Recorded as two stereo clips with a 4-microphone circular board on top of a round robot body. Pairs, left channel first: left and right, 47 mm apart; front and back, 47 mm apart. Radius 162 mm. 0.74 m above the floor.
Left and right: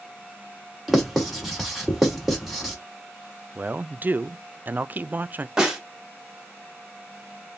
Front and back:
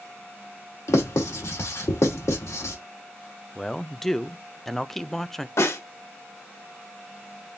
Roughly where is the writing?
Ahead.